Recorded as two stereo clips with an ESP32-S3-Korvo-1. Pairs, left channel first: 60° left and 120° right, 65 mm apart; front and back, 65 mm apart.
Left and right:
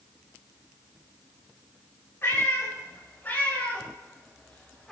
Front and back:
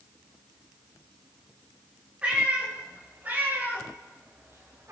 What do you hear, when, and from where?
2.2 s a cat meowing: 110° left, 6 m; by 4.9 s 140° left, 5.5 m